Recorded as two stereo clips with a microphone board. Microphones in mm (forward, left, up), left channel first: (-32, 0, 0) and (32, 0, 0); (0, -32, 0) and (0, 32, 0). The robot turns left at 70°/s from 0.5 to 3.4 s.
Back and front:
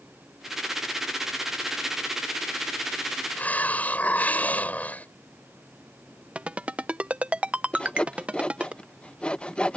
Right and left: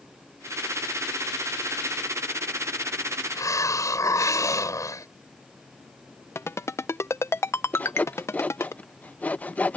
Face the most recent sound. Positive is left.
turn(degrees=-125)